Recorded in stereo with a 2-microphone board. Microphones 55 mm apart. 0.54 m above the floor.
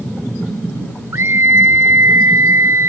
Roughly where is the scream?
Right.